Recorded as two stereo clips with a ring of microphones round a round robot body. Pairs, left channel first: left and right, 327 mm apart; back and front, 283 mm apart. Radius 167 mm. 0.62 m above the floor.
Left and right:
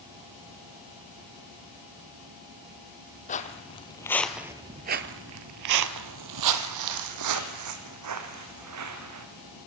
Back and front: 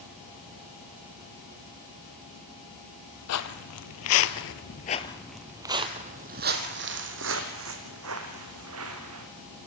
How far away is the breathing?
No breathing in this recording.